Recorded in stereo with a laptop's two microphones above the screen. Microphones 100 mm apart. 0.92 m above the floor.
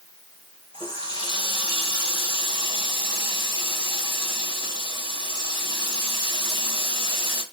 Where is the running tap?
45° left (ahead or behind), 2.5 m.